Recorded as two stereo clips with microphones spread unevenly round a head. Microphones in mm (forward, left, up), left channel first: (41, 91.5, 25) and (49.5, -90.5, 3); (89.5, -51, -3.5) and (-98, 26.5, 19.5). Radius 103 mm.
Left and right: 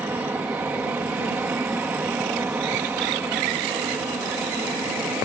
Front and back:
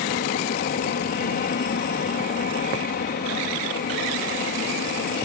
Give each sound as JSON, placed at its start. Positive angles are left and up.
{"t": 0.0, "sound": "an aircraft", "azimuth_deg": -15}